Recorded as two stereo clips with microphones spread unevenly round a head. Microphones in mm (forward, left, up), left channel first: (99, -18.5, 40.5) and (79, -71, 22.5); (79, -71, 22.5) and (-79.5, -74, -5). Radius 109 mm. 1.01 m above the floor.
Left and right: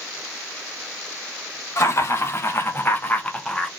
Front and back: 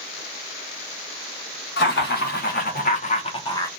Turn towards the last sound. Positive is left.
turn(degrees=-60)